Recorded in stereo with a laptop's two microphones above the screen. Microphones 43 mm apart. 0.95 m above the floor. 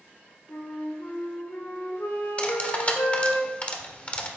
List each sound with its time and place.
0.5 s a flute: 80° left, 3 m
2.4 s cutlery clinking: 30° left (ahead or behind), 1.5 m